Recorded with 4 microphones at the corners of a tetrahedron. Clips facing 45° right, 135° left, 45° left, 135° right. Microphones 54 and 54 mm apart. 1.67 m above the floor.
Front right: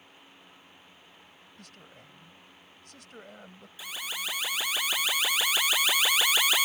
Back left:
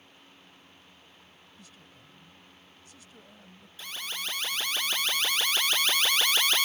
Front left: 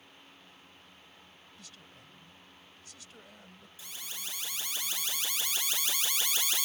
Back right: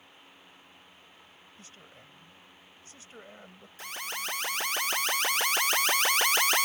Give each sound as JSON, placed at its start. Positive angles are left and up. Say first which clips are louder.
{"t": 1.6, "sound": "a man speaking", "louder": "front right 4 dB, back right 3 dB", "azimuth_deg": -75}
{"t": 3.8, "sound": "an alarm", "louder": "front right 1 dB, back right 9 dB", "azimuth_deg": -125}